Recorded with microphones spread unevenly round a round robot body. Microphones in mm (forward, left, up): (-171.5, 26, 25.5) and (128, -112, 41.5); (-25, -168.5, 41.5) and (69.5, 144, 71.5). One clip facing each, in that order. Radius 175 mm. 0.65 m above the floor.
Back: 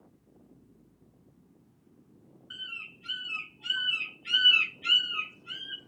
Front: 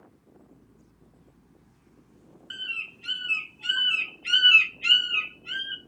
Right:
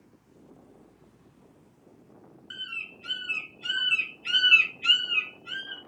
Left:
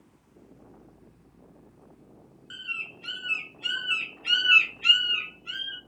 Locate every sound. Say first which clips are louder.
2.5 s a bird: front 4 dB, left 1 dB; 5° right, 0.9 m